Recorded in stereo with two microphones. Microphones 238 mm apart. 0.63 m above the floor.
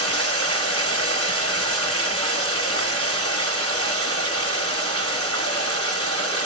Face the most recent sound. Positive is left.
turn(degrees=-75)  # may be behind; listen again after turning